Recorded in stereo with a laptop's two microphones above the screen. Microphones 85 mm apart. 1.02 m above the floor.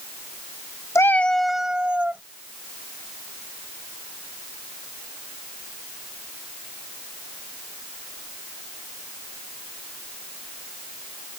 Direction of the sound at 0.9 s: 35° left (ahead or behind).